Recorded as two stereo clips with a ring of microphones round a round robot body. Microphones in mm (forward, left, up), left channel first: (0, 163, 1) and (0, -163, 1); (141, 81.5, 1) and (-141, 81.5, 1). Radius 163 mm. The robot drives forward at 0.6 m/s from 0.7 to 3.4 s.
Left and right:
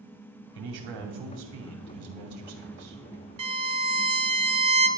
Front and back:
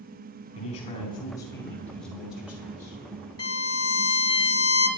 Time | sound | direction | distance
0.6 | a man speaking | 70° right | 3 m
3.4 | a violin | 70° right | 1.2 m